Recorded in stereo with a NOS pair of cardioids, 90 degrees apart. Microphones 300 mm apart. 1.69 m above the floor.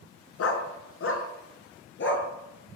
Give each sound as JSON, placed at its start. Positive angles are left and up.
{"t": 0.4, "sound": "a dog barking", "azimuth_deg": 55, "distance_m": 5.5}